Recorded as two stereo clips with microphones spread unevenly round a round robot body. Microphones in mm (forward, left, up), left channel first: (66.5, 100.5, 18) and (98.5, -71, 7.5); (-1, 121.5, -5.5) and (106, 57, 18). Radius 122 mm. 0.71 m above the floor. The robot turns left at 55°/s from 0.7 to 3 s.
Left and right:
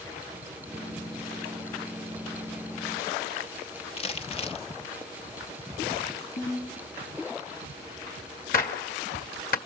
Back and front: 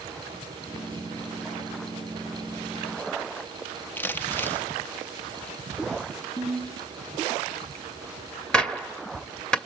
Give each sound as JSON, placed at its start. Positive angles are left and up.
{"t": 4.0, "sound": "crumpling", "azimuth_deg": 120, "distance_m": 0.8}
{"t": 6.4, "sound": "a ringtone", "azimuth_deg": 130, "distance_m": 6.5}
{"t": 8.5, "sound": "a gunshot", "azimuth_deg": 70, "distance_m": 1.9}